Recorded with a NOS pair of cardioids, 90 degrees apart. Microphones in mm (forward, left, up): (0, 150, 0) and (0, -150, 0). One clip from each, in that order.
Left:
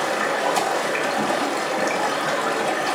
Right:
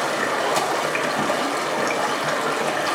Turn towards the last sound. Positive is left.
turn(degrees=-20)